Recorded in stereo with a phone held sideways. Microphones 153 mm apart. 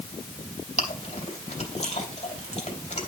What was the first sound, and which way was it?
Chewing, 45° left (ahead or behind).